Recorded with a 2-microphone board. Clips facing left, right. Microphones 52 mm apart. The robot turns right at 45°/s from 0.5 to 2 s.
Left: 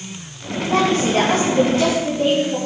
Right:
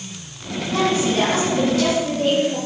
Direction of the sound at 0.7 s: 100° left.